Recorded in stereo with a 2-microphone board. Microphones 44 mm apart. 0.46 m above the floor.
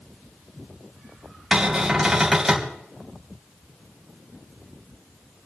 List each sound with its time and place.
1.5 s a cupboard door: 10° right (ahead or behind), 3 m